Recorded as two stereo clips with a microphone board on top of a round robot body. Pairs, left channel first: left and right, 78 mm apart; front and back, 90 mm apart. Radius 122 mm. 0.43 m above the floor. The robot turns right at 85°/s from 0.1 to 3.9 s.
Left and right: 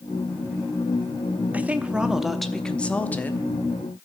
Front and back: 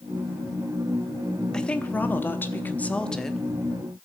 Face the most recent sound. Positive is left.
turn(degrees=130)